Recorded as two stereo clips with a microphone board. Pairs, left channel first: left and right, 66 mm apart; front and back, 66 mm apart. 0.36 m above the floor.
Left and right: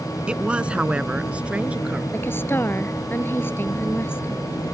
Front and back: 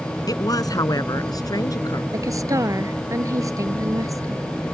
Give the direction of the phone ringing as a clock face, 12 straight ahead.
No phone ringing in this recording.